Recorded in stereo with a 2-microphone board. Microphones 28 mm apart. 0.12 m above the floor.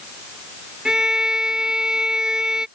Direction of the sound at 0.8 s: 25° right (ahead or behind).